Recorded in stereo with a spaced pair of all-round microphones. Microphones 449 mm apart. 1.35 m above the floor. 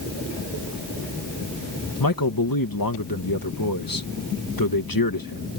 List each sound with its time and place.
2.0 s a man speaking: 50° left (ahead or behind)